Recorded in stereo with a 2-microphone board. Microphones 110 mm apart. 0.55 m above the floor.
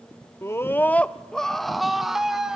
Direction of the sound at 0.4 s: 25° left (ahead or behind).